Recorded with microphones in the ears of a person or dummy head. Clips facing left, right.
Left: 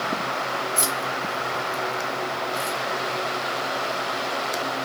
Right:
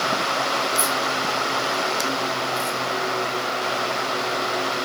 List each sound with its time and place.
0.8 s keys jangling: 60° left (ahead or behind), 1.4 m; by 2.8 s 5° right (ahead or behind), 1.6 m